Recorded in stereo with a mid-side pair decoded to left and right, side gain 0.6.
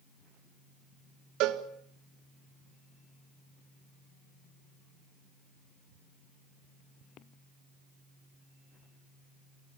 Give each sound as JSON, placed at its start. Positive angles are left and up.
{"t": 1.4, "sound": "a cowbell", "azimuth_deg": -70, "distance_m": 1.6}